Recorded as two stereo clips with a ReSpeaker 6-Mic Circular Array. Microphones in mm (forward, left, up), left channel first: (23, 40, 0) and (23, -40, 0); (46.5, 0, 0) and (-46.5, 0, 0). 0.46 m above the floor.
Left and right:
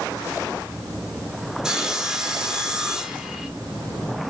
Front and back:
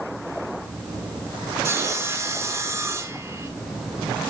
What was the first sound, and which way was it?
Sawing, 165° right.